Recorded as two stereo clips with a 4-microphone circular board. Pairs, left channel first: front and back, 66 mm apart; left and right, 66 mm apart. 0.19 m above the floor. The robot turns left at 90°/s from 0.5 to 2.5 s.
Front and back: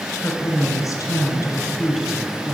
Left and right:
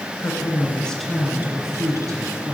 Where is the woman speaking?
45° left, 2 m; by 2.5 s 135° right, 2 m.